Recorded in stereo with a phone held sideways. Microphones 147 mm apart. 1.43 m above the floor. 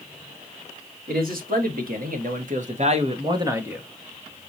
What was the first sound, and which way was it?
A man speaking, 80° right.